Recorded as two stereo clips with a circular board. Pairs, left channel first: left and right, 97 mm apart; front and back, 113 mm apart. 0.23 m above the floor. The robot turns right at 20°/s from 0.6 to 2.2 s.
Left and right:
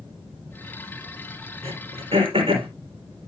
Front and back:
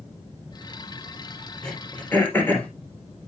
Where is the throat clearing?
85° right, 3.5 m; by 2.7 s 75° right, 3.5 m.